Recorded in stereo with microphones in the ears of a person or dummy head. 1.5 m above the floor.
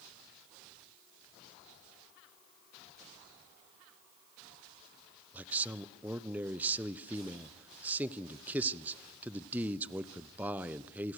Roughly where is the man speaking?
Centre.